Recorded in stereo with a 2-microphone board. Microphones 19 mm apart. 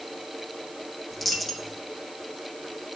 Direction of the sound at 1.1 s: 10° left (ahead or behind).